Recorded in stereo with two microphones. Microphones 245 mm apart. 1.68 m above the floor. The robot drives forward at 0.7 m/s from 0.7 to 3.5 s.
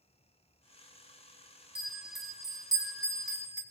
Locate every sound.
1.8 s a bell: 20° right (ahead or behind), 1.3 m; by 3.6 s 15° right (ahead or behind), 2 m